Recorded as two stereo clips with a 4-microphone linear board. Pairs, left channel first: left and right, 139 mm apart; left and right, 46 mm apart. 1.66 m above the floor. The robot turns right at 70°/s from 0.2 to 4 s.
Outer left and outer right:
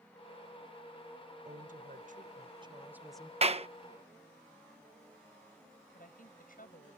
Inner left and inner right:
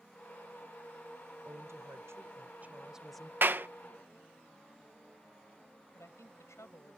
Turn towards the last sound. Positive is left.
turn(degrees=85)